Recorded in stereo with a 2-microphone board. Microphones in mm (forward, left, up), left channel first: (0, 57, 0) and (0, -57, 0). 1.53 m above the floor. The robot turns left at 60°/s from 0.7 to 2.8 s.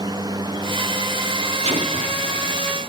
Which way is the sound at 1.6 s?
65° right.